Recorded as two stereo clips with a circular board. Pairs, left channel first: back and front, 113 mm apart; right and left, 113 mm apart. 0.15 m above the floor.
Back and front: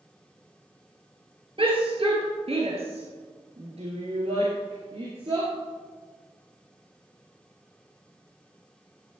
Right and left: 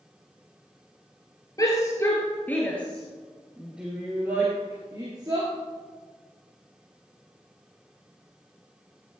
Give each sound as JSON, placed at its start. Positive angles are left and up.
{"t": 1.6, "sound": "a shout", "azimuth_deg": -35, "distance_m": 2.5}